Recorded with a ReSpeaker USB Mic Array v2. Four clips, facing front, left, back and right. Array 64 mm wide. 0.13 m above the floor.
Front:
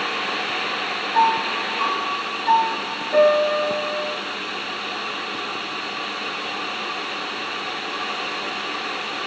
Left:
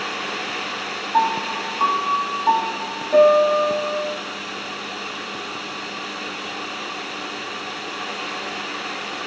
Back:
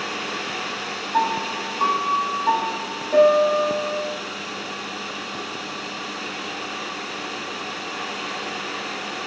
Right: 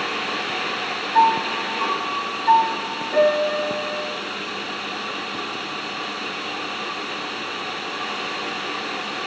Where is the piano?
125° left, 2 m.